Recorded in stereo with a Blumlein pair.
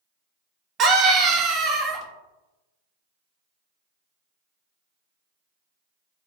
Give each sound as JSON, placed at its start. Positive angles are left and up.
{"t": 0.8, "sound": "a scream", "azimuth_deg": -30, "distance_m": 0.6}